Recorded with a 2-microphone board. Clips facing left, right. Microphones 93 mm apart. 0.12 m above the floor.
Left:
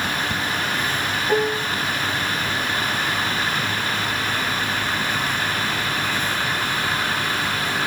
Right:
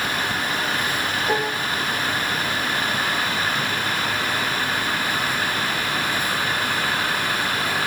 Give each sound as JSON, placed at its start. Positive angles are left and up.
{"t": 1.3, "sound": "dishes clattering", "side_deg": -55, "distance_m": 9.0}